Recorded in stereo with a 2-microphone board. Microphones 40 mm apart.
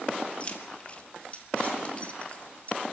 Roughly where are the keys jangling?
Left.